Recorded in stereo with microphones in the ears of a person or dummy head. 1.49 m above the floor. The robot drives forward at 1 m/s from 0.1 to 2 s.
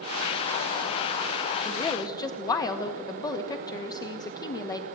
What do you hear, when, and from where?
1.6 s a woman speaking: 25° left (ahead or behind), 1.4 m; by 4.8 s 20° left (ahead or behind), 1.7 m